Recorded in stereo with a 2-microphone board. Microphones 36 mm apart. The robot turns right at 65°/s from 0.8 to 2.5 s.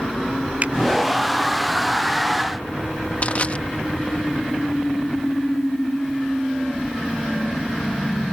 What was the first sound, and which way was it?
A finger snap, 45° right (ahead or behind).